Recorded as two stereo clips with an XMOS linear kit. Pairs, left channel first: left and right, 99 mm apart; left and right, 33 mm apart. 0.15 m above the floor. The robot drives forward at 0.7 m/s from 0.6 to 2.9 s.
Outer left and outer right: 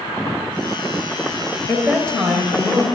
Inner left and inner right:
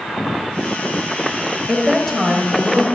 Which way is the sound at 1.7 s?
15° left (ahead or behind).